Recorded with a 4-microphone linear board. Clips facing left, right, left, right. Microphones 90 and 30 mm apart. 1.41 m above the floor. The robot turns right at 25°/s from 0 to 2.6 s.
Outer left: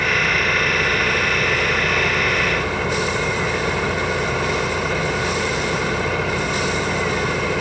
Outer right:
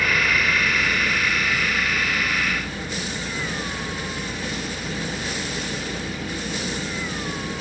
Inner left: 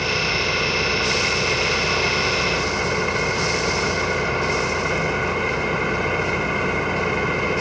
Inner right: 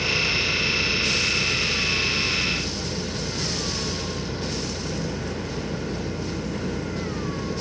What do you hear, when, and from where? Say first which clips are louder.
0.0 s an engine running: outer left 2 dB, inner left 2 dB; 25° left; by 7.6 s 90° left